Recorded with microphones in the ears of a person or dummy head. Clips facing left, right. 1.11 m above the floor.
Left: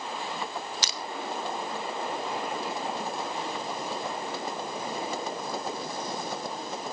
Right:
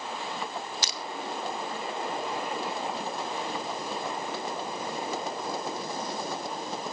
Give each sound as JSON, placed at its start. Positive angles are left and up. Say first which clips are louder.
{"t": 0.8, "sound": "crushing", "louder": "even", "side_deg": 65, "distance_m": 0.8}